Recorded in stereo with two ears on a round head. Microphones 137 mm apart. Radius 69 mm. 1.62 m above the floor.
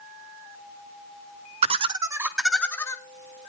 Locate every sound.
1.6 s laughter: 45° right (ahead or behind), 1.3 m; by 3.0 s 20° left (ahead or behind), 1.5 m